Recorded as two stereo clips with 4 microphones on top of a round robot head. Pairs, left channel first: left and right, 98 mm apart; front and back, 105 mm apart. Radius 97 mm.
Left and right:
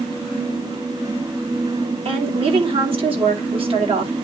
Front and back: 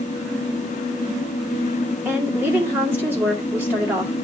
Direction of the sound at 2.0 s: 110° right.